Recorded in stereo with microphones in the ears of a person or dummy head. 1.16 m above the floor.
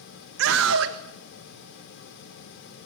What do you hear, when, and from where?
0.4 s a scream: 60° right (ahead or behind), 1.5 m